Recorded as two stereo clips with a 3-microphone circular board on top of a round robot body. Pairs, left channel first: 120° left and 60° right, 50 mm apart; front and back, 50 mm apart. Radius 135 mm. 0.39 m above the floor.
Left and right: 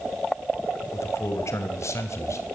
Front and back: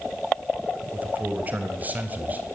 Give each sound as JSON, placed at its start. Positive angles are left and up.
{"t": 0.9, "sound": "a man speaking", "azimuth_deg": 125, "distance_m": 3.0}